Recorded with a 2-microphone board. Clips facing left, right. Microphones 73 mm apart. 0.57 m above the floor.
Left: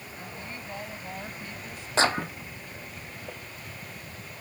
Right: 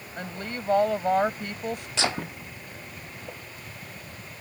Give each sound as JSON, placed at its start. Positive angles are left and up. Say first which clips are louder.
{"t": 0.2, "sound": "a woman speaking", "louder": "right 7 dB", "side_deg": -70}
{"t": 2.0, "sound": "a clap", "louder": "left 6 dB", "side_deg": 40}